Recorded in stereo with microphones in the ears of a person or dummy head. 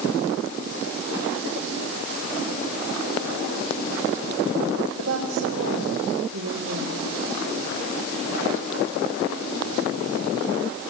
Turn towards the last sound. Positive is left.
turn(degrees=-80)